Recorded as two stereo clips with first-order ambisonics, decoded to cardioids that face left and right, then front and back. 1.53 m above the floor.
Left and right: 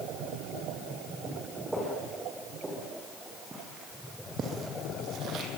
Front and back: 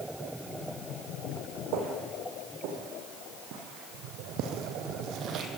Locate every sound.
1.7 s footsteps: 175° right, 6.5 m; by 5.5 s 130° right, 3.5 m